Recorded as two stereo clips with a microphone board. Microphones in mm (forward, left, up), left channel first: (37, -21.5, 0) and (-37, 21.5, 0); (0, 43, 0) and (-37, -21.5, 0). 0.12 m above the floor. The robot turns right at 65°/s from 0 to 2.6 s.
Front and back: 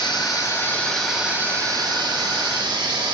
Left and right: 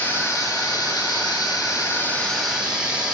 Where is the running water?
10° right, 9.5 m; by 3.1 s 160° left, 9.5 m.